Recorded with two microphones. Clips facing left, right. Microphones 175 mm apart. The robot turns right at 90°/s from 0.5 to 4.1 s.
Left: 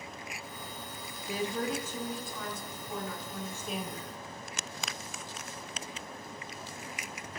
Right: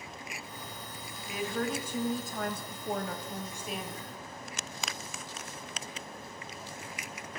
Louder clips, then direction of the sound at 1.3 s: Even; 140° left.